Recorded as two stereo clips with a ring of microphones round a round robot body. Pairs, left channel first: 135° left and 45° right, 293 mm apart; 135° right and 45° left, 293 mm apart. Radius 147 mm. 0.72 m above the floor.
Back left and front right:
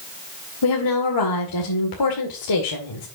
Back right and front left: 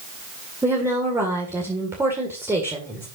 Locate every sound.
0.6 s a woman speaking: 125° left, 2 m